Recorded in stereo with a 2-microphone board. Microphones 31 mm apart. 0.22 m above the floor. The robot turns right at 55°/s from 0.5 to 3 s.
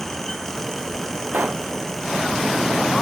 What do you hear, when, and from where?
1.3 s a pop: 55° right (ahead or behind); by 1.7 s 35° right (ahead or behind)